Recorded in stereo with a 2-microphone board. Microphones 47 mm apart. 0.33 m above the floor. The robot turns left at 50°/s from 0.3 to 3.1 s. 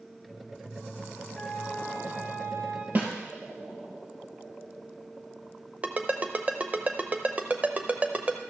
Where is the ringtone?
30° right (ahead or behind), 0.7 m.